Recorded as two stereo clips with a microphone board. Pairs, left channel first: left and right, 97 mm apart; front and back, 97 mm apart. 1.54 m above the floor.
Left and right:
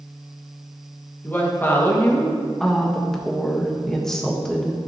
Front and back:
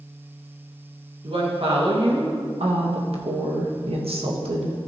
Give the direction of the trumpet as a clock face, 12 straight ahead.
No trumpet in this recording.